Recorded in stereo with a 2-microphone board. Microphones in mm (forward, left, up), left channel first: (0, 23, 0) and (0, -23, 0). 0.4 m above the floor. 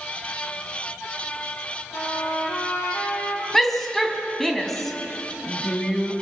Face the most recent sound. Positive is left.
turn(degrees=5)  # may be behind; listen again after turning